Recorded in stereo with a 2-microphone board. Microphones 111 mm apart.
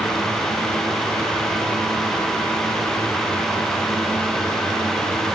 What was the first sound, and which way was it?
Only background noise.